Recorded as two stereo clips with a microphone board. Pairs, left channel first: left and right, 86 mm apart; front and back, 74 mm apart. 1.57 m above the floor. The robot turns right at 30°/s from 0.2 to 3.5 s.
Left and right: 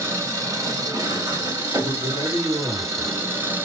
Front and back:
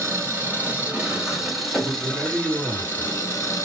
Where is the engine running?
135° right, 1.7 m; by 3.6 s 35° right, 1.7 m.